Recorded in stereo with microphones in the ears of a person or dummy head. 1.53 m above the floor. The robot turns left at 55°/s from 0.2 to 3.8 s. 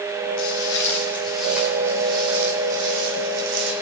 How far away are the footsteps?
About 4.5 m.